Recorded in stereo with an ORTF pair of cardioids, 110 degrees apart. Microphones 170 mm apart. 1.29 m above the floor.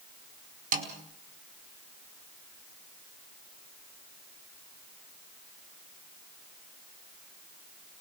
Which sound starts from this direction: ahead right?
A snare drum, at 0.7 s.